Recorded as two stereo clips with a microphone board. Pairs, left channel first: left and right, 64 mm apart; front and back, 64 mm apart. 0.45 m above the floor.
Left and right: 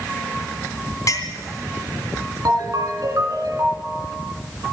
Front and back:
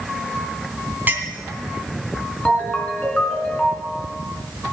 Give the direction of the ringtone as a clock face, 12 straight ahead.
2 o'clock.